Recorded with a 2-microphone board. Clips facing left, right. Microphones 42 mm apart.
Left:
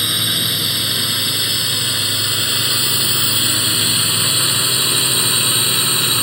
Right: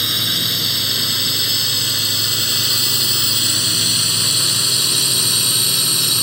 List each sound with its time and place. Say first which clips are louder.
0.0 s a drone: left 1 dB; 10° left (ahead or behind); by 6.2 s 30° left (ahead or behind)